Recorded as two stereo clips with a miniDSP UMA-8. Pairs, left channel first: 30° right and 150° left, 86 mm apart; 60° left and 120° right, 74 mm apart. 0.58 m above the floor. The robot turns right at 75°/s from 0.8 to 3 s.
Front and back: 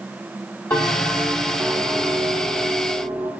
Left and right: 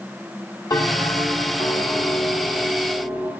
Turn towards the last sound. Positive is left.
turn(degrees=-170)